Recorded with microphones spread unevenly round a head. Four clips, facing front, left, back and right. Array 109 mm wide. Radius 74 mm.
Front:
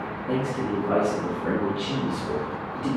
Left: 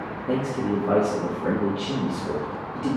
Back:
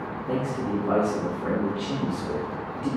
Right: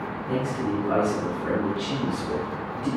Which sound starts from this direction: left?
A man speaking, at 0.3 s.